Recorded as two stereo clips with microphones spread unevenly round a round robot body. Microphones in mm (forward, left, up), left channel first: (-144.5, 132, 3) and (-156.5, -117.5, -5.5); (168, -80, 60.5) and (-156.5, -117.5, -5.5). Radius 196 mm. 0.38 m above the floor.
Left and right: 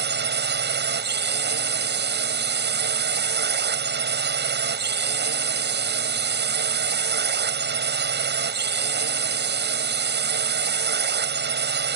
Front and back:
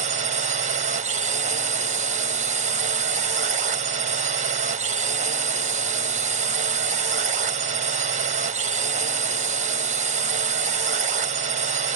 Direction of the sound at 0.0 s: 120° right.